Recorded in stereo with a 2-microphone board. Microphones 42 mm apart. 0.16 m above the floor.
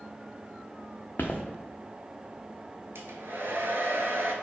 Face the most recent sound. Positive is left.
turn(degrees=-70)  # may be behind; listen again after turning